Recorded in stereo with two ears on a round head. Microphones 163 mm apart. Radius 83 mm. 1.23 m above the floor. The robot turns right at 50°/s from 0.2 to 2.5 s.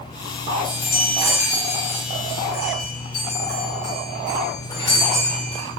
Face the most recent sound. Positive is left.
turn(degrees=150)